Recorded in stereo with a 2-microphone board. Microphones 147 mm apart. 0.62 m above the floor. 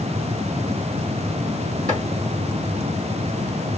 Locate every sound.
1.9 s chopping: 60° right (ahead or behind), 2.5 m